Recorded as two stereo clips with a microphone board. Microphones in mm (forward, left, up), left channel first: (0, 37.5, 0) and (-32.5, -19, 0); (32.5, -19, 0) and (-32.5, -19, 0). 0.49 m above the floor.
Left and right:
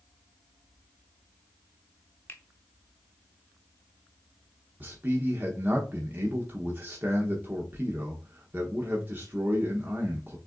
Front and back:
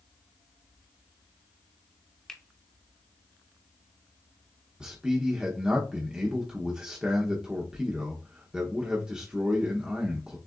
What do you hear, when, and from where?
2.3 s a finger snap: 75° left, 0.9 m
4.8 s a man speaking: 120° right, 0.9 m